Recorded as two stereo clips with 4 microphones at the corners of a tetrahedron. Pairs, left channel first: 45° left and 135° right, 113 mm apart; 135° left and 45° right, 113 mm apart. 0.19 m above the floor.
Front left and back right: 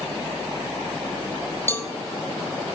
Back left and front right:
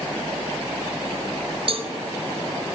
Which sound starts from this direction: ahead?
A cowbell, at 1.7 s.